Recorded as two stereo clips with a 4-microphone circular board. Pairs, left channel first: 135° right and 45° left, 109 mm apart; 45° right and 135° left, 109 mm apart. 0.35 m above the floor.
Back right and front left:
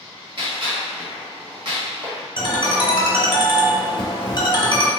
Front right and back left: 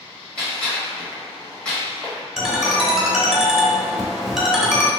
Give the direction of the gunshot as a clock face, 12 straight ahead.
11 o'clock.